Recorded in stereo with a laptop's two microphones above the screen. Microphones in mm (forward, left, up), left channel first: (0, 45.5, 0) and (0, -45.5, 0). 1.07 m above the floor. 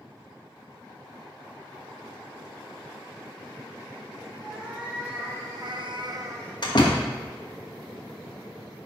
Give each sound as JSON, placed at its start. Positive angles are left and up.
{"t": 4.4, "sound": "a cat meowing", "side_deg": -15, "distance_m": 2.0}
{"t": 6.6, "sound": "a door slam", "side_deg": 50, "distance_m": 1.1}